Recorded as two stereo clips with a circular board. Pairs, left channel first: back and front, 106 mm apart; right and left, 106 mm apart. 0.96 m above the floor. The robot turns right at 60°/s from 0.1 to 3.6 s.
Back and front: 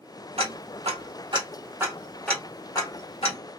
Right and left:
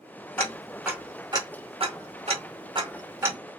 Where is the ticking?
20° right, 1.4 m; by 3.4 s 160° left, 1.4 m.